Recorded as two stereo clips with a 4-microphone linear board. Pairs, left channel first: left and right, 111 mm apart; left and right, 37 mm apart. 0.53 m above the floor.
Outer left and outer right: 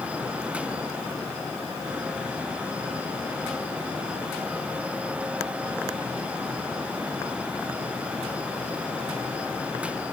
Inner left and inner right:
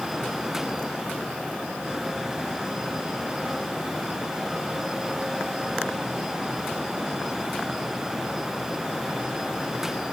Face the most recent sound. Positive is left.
No sound to turn to.